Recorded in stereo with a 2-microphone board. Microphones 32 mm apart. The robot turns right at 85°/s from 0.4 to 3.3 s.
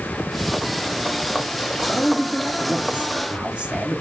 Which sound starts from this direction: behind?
A man speaking, at 1.8 s.